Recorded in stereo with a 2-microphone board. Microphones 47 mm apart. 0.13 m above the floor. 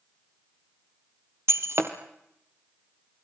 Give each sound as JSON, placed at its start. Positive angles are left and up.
{"t": 1.5, "sound": "breaking glass", "side_deg": -70, "distance_m": 2.0}